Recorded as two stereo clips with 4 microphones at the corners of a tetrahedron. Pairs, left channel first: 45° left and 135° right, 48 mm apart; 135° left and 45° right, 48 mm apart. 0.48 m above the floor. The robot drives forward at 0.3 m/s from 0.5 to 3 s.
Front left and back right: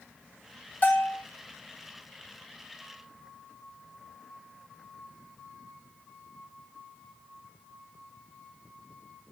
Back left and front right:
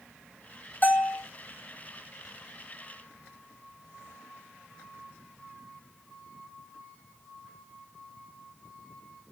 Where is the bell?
95° left, 1.3 m; by 1.2 s 100° left, 1.3 m.